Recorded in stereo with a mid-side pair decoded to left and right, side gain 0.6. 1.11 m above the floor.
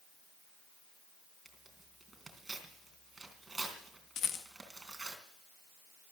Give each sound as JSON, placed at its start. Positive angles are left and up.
{"t": 1.4, "sound": "tearing paper", "azimuth_deg": -10, "distance_m": 3.5}
{"t": 4.2, "sound": "a rattle", "azimuth_deg": 50, "distance_m": 1.6}